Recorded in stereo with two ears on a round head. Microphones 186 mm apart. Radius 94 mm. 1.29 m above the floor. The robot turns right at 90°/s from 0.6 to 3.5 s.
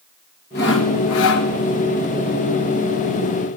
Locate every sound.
0.6 s sawing: 50° left, 1.3 m; by 1.5 s 130° left, 1.3 m